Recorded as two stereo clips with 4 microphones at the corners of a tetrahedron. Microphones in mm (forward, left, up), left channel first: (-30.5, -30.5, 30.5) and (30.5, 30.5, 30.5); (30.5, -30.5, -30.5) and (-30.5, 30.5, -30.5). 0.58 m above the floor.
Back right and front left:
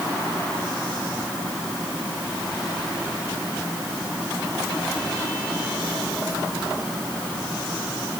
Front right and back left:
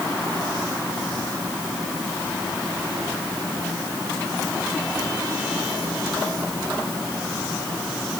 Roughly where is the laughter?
No laughter in this recording.